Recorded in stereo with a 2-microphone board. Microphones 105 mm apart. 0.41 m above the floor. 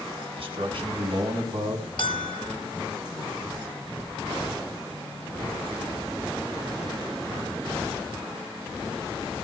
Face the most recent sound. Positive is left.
turn(degrees=60)  # may be behind; listen again after turning